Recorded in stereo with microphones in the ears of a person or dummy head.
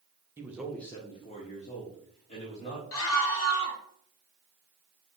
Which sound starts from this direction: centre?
A man speaking, at 0.4 s.